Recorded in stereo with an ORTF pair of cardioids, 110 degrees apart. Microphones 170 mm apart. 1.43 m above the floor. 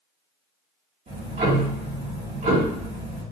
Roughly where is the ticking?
Ahead right.